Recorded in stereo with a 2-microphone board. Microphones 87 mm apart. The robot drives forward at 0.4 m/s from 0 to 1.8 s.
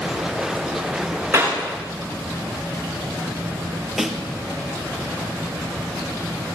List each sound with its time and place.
1.3 s a clap: 25° right (ahead or behind), 9.5 m
4.0 s a snare drum: 5° right (ahead or behind), 3 m